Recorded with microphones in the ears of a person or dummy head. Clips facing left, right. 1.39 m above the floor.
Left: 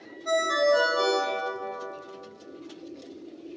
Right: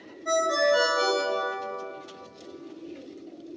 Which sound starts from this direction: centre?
A ringtone, at 0.2 s.